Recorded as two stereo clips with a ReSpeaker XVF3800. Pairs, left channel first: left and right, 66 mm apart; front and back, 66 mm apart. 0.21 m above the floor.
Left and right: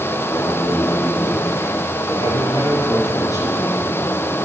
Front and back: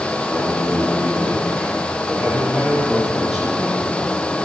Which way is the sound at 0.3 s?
135° left.